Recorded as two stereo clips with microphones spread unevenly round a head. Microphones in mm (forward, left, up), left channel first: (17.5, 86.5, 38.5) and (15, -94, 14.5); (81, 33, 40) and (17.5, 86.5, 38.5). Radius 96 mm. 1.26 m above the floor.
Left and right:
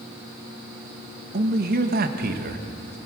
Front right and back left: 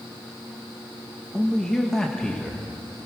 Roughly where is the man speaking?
Behind right.